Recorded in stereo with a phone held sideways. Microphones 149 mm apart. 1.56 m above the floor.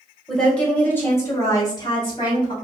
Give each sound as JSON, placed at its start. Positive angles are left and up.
{"t": 0.3, "sound": "a woman speaking", "side_deg": 5, "distance_m": 1.6}